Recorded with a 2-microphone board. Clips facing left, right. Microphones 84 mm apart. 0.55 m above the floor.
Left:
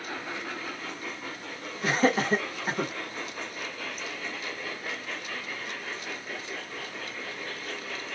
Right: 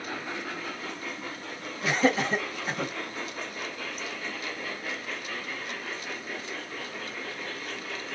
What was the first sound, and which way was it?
Laughter, 40° left (ahead or behind).